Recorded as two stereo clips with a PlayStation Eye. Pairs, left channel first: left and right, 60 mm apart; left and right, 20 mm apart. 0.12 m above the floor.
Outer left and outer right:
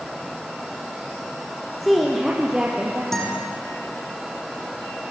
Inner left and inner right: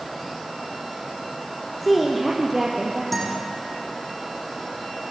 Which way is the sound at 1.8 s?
5° left (ahead or behind).